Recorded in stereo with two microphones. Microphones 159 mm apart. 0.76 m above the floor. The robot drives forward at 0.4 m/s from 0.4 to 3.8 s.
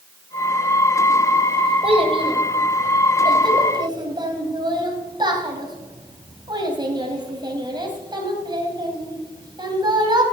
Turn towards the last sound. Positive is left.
turn(degrees=-30)  # may be behind; listen again after turning